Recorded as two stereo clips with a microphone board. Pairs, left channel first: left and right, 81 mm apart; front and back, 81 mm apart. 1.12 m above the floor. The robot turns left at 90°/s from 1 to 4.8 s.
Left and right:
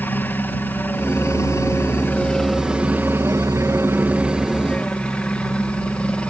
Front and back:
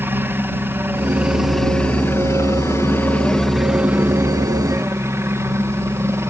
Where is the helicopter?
140° left; by 6.3 s 155° left.